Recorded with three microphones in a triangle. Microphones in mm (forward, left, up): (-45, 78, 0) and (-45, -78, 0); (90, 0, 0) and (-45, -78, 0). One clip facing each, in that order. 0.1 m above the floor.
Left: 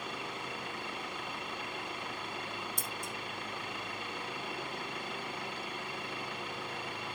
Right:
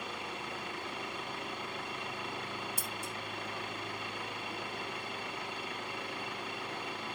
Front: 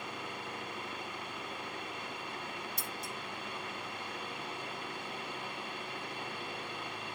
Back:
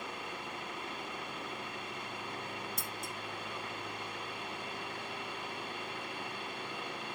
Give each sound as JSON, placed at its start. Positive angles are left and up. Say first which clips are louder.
{"t": 2.8, "sound": "scissors", "louder": "even, even", "azimuth_deg": -170, "distance_m": 2.5}